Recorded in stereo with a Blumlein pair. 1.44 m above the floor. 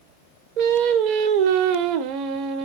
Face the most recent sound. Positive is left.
turn(degrees=-45)